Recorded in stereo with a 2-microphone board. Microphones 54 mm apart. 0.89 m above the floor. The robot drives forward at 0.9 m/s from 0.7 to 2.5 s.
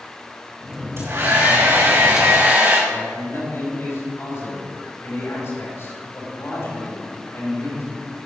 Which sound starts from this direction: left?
A man speaking, at 2.9 s.